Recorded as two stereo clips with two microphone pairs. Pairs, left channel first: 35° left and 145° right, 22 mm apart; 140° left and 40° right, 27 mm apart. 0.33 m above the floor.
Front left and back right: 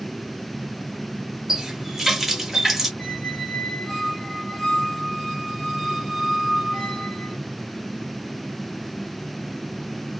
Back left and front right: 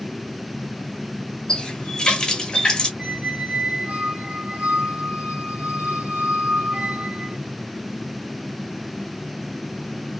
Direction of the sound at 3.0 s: 45° right.